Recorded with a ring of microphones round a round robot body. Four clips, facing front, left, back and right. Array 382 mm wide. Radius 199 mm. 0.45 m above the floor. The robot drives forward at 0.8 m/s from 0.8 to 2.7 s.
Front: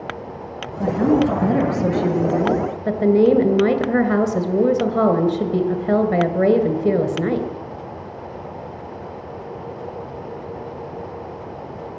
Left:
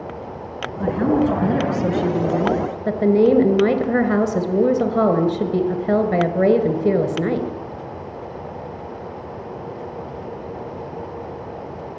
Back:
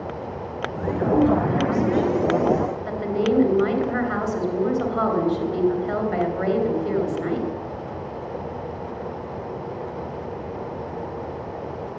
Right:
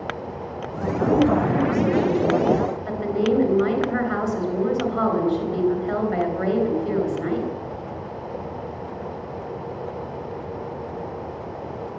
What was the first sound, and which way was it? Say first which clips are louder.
A woman speaking: left 1 dB, front 3 dB; 30° left.